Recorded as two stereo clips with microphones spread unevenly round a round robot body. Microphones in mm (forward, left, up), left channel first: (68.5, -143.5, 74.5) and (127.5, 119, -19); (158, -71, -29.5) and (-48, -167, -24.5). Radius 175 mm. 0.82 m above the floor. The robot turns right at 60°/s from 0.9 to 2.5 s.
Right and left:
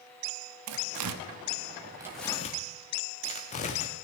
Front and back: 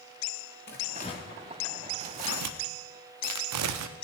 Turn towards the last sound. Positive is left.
turn(degrees=-175)